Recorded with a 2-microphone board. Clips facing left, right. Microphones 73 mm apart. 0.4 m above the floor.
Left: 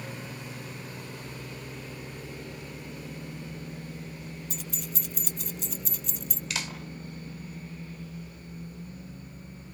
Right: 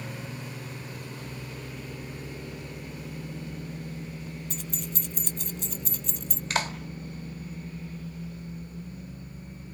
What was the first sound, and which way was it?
Keys jangling, 5° left (ahead or behind).